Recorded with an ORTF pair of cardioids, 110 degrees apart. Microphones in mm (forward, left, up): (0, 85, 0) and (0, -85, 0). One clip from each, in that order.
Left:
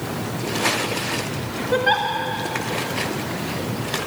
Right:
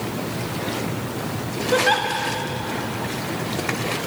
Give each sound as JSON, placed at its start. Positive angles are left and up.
{"t": 1.7, "sound": "a giggle", "azimuth_deg": 0, "distance_m": 2.5}